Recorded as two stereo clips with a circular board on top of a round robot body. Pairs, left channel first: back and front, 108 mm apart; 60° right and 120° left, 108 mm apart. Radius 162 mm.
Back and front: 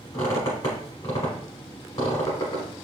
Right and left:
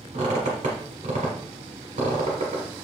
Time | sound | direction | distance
0.1 | a squeak | 130° left | 1.0 m